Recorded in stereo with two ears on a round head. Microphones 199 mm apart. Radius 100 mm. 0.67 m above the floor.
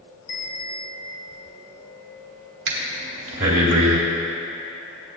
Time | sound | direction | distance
0.3 | a bell | 60° left (ahead or behind) | 4 m
2.7 | breathing | 60° right (ahead or behind) | 2.5 m